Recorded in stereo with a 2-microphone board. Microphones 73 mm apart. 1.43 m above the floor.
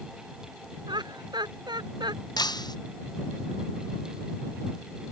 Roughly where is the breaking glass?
Left.